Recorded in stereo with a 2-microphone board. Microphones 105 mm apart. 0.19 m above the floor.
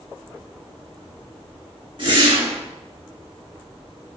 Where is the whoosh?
50° right (ahead or behind), 3.5 m.